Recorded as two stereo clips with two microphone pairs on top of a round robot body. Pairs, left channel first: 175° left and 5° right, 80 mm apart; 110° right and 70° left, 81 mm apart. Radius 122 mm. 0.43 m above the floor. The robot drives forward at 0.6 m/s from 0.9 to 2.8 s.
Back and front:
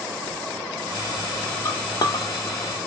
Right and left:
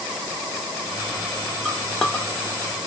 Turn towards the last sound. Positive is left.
turn(degrees=-175)